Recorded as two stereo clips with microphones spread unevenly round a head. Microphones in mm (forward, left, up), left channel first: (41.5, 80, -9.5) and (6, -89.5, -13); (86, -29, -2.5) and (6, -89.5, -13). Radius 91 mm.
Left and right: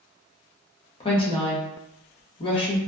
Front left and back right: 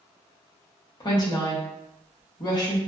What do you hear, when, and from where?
1.0 s a woman speaking: 40° left, 0.7 m